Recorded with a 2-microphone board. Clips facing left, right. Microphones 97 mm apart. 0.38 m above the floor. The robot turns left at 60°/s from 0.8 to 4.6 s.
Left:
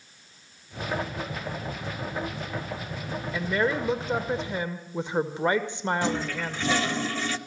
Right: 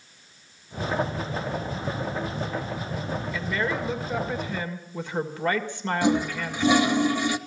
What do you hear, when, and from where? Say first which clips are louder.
3.3 s a woman speaking: left 4 dB; 20° left (ahead or behind), 1.5 m
6.0 s a toilet flushing: right 5 dB; 15° right (ahead or behind), 1.0 m